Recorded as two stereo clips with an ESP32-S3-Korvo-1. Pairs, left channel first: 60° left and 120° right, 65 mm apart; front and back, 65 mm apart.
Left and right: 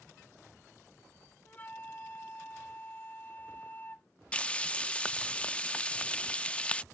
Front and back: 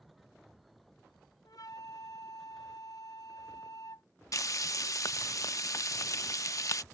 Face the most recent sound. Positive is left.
turn(degrees=-5)